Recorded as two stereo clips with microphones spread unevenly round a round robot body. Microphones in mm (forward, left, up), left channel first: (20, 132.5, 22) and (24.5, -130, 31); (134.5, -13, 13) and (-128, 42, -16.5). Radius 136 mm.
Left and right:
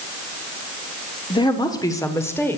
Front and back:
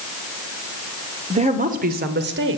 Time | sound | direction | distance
1.3 | a woman speaking | 140° left | 1.2 m